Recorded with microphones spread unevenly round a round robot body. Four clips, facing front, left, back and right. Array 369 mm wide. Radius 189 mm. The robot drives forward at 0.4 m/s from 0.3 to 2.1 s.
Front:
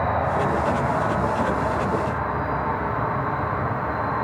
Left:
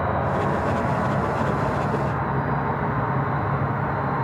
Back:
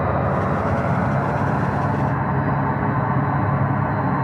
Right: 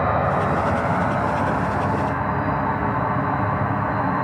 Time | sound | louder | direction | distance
0.0 | an insect | right 3 dB, back 1 dB | straight behind | 0.8 m